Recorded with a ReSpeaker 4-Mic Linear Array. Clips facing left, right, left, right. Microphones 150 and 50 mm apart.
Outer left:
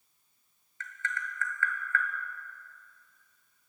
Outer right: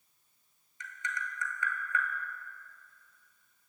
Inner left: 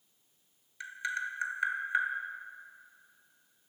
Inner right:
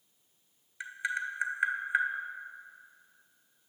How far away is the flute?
I don't hear a flute.